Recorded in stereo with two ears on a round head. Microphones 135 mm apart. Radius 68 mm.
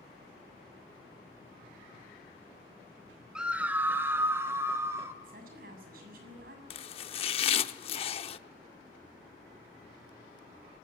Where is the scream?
5° right (ahead or behind), 1.0 m; by 5.1 s 20° right (ahead or behind), 3 m.